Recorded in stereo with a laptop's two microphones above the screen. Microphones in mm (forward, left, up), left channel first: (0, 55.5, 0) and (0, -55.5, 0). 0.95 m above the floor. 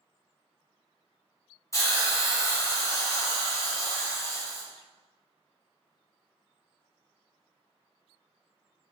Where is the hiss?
25° left (ahead or behind), 0.7 m.